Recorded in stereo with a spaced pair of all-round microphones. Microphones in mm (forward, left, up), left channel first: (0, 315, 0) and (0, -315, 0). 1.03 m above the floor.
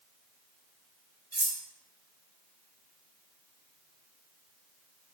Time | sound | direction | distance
1.3 | cutlery clinking | 25° right (ahead or behind) | 0.9 m